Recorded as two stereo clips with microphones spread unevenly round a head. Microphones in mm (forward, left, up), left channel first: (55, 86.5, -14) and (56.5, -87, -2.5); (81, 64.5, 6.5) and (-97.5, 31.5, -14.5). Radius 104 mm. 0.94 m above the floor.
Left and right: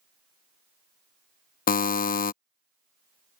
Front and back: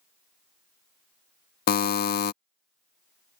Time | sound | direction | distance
1.7 | a buzzer | 45° left | ?